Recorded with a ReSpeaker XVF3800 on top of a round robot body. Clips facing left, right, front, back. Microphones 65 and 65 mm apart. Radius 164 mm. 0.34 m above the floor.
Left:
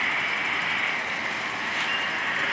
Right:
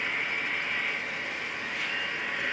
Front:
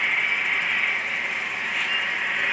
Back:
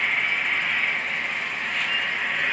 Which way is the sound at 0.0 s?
85° left.